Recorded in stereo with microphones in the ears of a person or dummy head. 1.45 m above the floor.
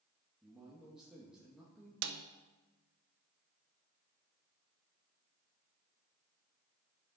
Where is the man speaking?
5° right (ahead or behind), 2 m.